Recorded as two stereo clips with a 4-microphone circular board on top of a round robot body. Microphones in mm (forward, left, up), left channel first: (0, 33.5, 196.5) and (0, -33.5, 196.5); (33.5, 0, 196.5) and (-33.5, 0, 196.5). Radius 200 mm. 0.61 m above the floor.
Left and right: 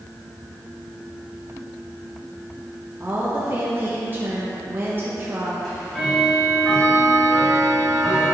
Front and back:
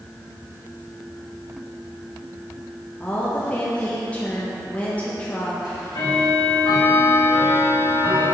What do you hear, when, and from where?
3.0 s a woman speaking: 60° right, 1.1 m
5.6 s ticking: 5° left, 1.2 m